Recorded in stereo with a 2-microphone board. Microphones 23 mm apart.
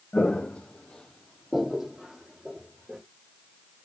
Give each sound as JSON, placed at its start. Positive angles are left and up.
{"t": 0.1, "sound": "footsteps", "side_deg": 75, "distance_m": 0.7}